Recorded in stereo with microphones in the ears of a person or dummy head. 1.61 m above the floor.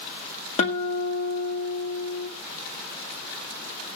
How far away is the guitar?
About 1.3 m.